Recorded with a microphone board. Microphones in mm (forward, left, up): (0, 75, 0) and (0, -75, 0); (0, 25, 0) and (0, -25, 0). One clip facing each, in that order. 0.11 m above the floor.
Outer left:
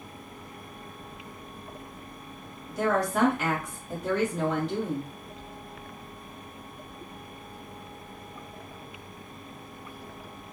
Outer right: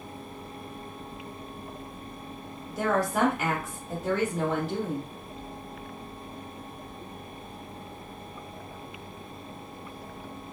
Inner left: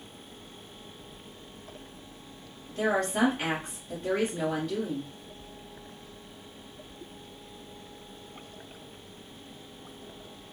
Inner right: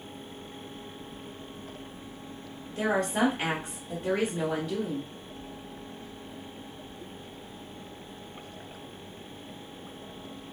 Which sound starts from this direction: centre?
A woman speaking, at 2.7 s.